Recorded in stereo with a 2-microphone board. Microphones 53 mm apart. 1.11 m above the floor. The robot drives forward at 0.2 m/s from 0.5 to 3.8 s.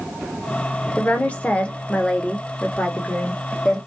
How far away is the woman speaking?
About 0.6 m.